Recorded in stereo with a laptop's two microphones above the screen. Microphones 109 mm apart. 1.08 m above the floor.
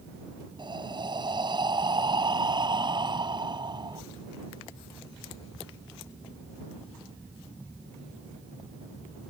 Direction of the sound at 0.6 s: 45° right (ahead or behind).